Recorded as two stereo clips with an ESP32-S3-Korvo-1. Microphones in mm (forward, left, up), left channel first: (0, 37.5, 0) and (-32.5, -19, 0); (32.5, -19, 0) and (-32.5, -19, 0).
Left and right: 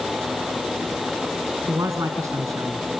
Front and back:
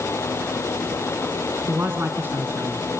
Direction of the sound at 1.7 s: 130° right.